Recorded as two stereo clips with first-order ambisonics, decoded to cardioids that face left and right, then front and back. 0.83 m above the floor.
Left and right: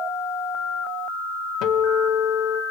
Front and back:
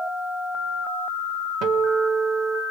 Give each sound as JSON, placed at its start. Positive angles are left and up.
{"t": 1.6, "sound": "a guitar", "azimuth_deg": 135, "distance_m": 1.5}